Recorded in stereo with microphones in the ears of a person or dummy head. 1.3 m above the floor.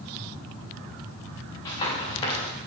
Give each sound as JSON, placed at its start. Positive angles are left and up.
{"t": 1.6, "sound": "running footsteps", "side_deg": 25, "distance_m": 6.0}